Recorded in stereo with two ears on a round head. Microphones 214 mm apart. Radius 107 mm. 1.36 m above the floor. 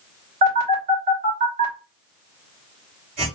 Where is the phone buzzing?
40° right (ahead or behind), 2.5 m.